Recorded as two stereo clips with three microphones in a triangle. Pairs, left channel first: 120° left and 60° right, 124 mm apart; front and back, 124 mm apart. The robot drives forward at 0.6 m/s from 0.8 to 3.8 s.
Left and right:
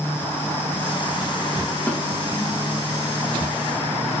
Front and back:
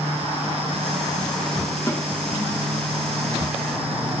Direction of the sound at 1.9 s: 45° left.